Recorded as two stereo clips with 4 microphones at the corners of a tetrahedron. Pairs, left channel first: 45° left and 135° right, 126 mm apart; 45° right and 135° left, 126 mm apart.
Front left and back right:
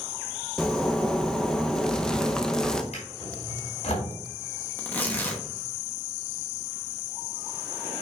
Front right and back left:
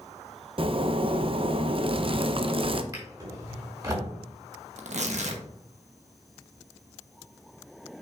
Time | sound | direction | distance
0.6 | a zipper | 125° left | 0.6 m
2.9 | a drawer | 75° left | 4 m
4.8 | tearing paper | 120° left | 1.1 m